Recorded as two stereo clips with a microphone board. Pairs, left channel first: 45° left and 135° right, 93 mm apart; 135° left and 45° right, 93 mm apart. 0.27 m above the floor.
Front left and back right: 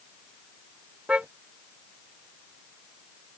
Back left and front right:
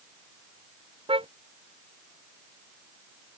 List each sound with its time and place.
1.1 s a car horn: 55° right